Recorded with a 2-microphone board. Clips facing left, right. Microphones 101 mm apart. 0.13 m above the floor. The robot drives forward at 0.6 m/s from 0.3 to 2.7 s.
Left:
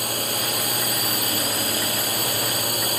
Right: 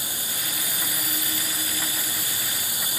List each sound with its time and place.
0.0 s a drone: 70° left (ahead or behind); by 3.0 s 65° left (ahead or behind)